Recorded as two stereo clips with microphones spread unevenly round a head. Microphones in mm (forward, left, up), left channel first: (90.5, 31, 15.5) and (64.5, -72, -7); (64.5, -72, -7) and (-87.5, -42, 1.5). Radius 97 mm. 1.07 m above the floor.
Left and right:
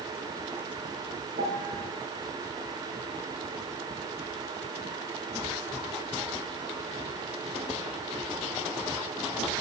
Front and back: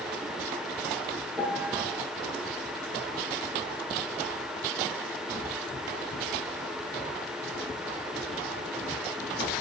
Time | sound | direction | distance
1.4 | a piano | 110° right | 5.5 m